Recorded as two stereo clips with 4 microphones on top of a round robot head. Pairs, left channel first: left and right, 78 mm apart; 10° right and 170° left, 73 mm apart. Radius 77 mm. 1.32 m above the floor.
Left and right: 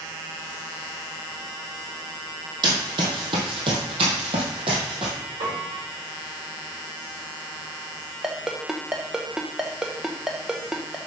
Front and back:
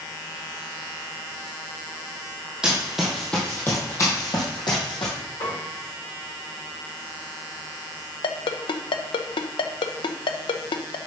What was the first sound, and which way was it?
Running footsteps, 110° right.